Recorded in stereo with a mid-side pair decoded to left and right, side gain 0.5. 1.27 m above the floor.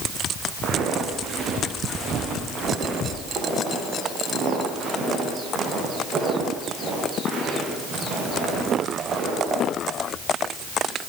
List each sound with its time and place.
0.6 s footsteps: 55° right, 5.5 m; by 9.6 s 50° right, 17 m